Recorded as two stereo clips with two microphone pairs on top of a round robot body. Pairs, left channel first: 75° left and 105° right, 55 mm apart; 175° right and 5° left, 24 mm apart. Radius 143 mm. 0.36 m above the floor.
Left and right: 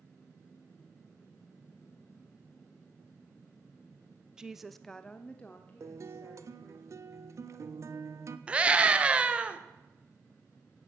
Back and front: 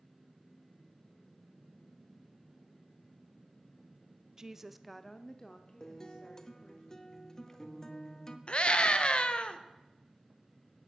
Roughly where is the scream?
Behind.